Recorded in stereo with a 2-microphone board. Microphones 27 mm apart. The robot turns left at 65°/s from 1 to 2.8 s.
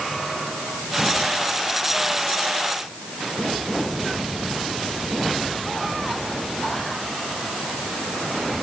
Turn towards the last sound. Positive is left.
No sound to turn to.